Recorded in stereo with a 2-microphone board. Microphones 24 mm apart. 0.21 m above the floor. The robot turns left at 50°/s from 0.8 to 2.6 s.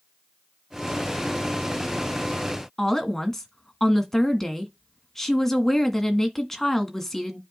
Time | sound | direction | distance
2.8 | a woman speaking | 10° left (ahead or behind) | 1.8 m